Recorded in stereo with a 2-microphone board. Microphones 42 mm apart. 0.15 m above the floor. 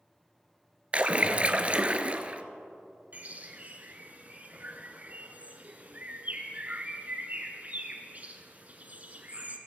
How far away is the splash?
About 0.7 m.